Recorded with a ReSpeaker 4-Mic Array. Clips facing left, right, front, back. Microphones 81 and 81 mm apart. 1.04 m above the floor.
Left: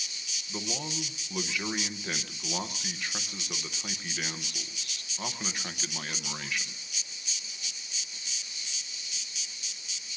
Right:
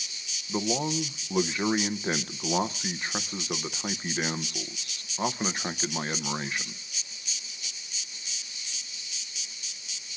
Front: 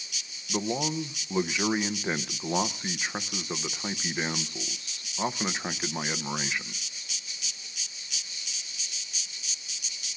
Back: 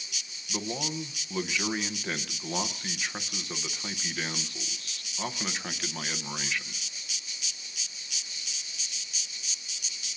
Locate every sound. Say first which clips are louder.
0.5 s a man speaking: right 9 dB, front 5 dB; 55° right, 0.8 m